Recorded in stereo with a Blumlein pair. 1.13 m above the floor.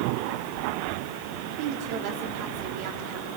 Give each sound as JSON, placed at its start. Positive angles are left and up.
{"t": 1.5, "sound": "a woman speaking", "azimuth_deg": -45, "distance_m": 3.0}